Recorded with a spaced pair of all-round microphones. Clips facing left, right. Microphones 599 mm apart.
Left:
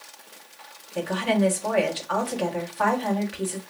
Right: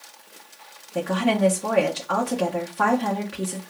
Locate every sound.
0.9 s a woman speaking: 65° right (ahead or behind), 1.3 m